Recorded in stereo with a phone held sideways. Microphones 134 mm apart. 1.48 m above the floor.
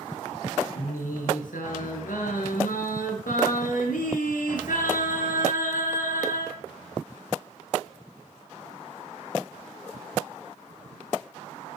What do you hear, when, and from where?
0.8 s singing: 80° left, 7 m